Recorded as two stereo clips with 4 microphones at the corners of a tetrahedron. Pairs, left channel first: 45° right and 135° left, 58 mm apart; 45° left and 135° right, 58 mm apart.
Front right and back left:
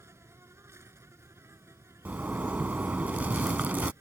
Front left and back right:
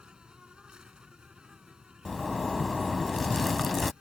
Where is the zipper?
135° left.